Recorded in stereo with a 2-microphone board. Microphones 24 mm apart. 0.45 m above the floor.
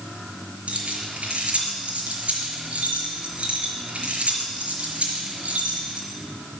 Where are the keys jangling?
65° right (ahead or behind), 4.5 m.